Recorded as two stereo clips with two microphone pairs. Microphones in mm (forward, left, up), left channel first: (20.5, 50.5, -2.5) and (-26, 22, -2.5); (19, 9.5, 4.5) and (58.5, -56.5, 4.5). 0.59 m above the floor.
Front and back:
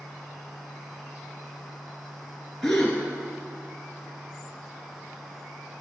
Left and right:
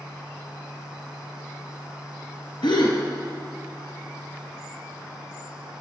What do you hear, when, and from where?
2.6 s a gasp: 115° left, 2.5 m